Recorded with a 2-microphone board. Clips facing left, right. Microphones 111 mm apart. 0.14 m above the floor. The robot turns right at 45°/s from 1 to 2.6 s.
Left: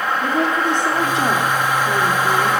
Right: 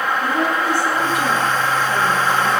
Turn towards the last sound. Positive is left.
turn(degrees=90)